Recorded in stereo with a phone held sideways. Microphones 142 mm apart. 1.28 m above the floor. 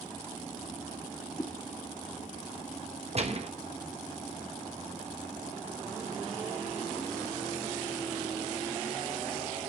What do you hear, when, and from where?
1.4 s a whoosh: 20° left (ahead or behind), 0.8 m
3.1 s a gunshot: 45° right (ahead or behind), 1.1 m